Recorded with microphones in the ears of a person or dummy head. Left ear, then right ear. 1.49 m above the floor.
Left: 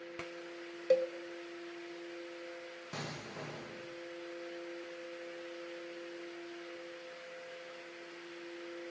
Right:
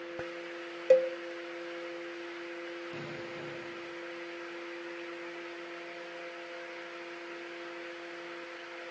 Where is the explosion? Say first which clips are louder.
Right 2 dB; 50° left (ahead or behind), 1.9 m.